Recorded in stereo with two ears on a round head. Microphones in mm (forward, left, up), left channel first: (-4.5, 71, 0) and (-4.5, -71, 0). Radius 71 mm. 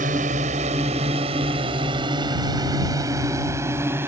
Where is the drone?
50° right (ahead or behind); by 4.1 s 15° right (ahead or behind).